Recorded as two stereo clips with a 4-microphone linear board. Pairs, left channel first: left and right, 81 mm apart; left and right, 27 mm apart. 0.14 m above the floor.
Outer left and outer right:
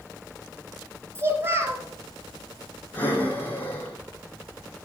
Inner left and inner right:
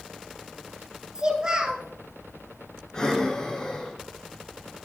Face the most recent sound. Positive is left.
turn(degrees=20)  # may be behind; listen again after turning